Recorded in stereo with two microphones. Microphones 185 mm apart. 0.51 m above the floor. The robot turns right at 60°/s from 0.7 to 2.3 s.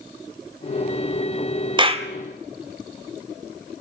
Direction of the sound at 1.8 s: 25° right (ahead or behind).